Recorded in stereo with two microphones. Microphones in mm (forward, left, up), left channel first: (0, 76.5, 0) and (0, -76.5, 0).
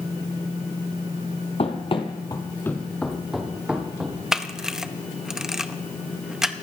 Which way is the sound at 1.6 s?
45° left (ahead or behind).